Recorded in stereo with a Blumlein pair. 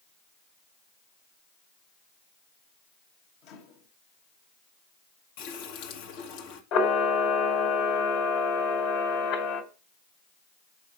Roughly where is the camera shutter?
Ahead left.